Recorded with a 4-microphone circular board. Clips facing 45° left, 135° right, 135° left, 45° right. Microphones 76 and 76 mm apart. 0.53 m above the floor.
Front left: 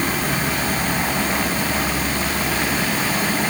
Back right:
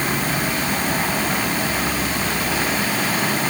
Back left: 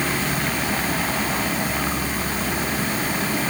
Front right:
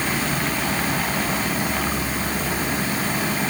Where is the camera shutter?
I don't hear a camera shutter.